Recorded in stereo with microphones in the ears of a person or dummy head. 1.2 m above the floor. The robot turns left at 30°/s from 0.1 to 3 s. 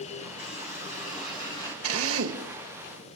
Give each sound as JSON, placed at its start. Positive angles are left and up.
{"t": 0.4, "sound": "a running tap", "azimuth_deg": 65, "distance_m": 7.5}
{"t": 1.8, "sound": "a drill", "side_deg": -75, "distance_m": 1.6}